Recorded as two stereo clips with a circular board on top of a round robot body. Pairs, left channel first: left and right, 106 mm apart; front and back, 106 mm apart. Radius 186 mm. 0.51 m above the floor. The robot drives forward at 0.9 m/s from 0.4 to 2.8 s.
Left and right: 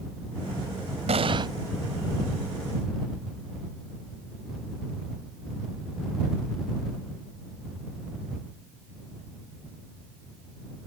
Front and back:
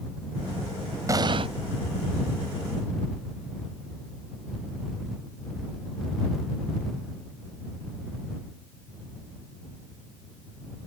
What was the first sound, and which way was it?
An explosion, 120° right.